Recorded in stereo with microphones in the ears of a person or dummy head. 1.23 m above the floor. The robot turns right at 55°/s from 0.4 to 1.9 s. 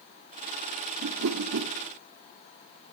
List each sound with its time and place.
1.0 s a whoosh: 50° right (ahead or behind), 0.7 m